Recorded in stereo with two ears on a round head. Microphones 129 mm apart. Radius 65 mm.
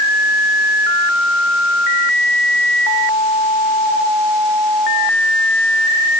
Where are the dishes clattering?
I don't hear dishes clattering.